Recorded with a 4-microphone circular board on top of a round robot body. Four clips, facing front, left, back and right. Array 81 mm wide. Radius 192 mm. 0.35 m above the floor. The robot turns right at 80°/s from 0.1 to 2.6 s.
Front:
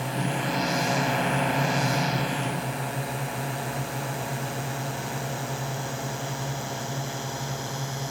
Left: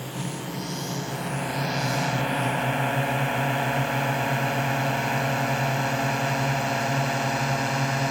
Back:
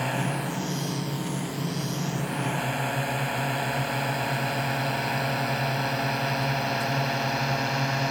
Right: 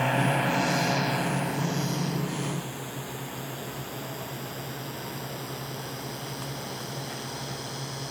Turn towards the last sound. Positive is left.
turn(degrees=120)